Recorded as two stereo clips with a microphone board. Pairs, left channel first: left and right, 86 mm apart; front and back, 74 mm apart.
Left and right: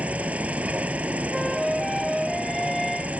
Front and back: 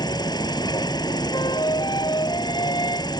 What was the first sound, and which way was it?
An insect, 15° right.